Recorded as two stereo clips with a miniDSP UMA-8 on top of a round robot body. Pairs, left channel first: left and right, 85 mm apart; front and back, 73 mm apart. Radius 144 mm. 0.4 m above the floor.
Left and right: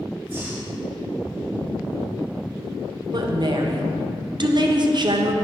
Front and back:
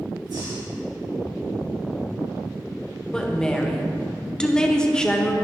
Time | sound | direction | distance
0.3 | breathing | 155° right | 3.5 m
3.1 | a woman speaking | 80° right | 1.5 m